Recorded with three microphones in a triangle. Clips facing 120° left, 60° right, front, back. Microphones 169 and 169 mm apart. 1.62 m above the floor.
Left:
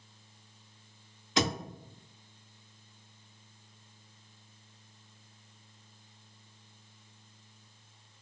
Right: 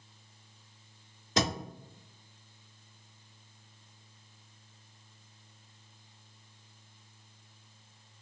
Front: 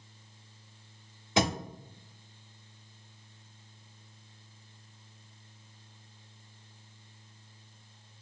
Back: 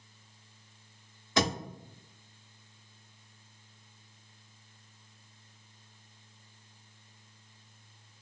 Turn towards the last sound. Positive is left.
turn(degrees=-55)